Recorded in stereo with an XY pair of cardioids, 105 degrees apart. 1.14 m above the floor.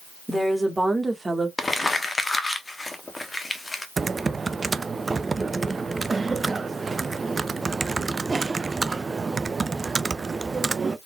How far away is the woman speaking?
About 1.8 m.